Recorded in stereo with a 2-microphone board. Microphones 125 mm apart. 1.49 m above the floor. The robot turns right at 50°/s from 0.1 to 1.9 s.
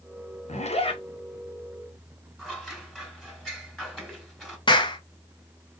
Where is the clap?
40° left (ahead or behind), 0.8 m.